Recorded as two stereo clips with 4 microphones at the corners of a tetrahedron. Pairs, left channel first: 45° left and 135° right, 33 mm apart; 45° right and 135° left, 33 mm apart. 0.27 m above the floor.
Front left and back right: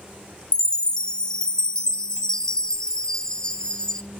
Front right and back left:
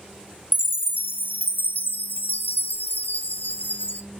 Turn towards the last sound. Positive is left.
turn(degrees=-25)